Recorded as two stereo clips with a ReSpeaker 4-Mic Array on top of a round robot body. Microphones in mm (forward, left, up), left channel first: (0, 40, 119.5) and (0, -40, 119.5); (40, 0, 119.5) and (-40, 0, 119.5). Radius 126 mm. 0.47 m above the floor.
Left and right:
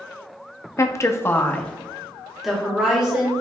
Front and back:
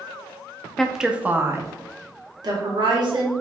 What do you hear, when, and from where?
0.8 s a woman speaking: 85° left, 0.8 m; by 3.3 s 170° right, 1.6 m